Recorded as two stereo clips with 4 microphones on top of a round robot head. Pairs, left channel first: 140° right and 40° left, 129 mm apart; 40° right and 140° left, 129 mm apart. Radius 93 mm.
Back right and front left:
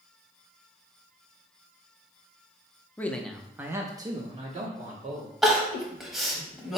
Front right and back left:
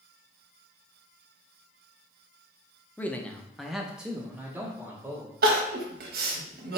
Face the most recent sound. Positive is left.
turn(degrees=125)